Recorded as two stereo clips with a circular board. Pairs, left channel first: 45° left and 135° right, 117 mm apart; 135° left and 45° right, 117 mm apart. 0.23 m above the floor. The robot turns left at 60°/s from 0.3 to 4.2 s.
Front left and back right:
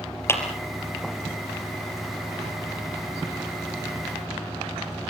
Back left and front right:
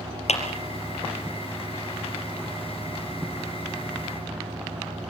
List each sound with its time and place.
0.3 s a clap: 115° left, 4 m; by 0.4 s 105° left, 4 m